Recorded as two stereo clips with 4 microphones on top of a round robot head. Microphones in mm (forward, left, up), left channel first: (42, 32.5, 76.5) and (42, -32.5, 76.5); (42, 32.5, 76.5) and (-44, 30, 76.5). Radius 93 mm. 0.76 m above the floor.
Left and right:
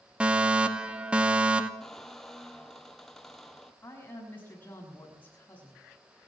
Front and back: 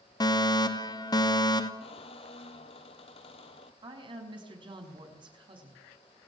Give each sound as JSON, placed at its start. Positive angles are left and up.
{"t": 0.2, "sound": "a fire alarm", "azimuth_deg": -20, "distance_m": 2.0}
{"t": 1.8, "sound": "a squeak", "azimuth_deg": 5, "distance_m": 1.8}
{"t": 3.8, "sound": "a woman speaking", "azimuth_deg": 155, "distance_m": 6.0}